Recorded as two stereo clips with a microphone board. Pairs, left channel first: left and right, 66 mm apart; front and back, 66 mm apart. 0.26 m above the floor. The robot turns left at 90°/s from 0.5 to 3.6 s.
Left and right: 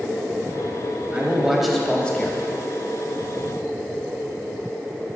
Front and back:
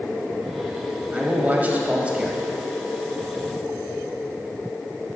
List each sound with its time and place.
1.1 s a man speaking: 135° right, 1.0 m; by 2.4 s 110° left, 1.0 m